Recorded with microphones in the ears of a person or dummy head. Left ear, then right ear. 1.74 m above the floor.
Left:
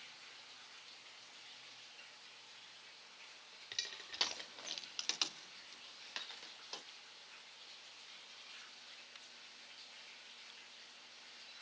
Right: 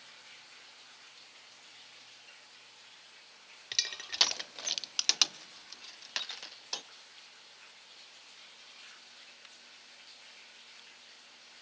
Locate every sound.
3.7 s crushing: 25° right (ahead or behind), 0.6 m